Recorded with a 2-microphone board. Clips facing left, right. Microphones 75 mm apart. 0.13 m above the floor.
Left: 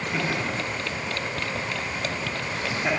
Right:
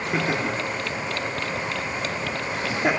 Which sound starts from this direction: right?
Laughter, at 0.1 s.